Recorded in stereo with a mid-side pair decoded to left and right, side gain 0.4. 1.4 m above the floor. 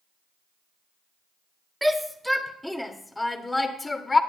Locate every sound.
1.8 s a shout: 10° right, 2.5 m; by 4.2 s 30° left, 2.5 m